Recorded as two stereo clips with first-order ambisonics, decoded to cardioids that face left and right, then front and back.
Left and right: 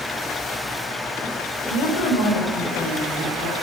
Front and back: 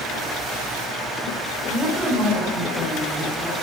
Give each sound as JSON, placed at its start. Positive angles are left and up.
{"t": 1.7, "sound": "a woman speaking", "azimuth_deg": 100, "distance_m": 3.0}